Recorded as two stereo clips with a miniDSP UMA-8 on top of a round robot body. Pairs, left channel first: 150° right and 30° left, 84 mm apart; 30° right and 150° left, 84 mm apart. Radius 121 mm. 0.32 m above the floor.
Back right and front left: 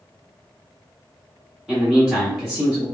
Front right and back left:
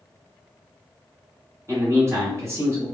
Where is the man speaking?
110° left, 1.2 m.